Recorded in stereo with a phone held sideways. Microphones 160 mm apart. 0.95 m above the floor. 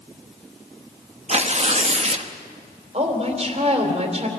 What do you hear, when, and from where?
1.3 s tearing paper: 40° right (ahead or behind), 1.0 m
2.9 s a woman speaking: 40° right (ahead or behind), 3 m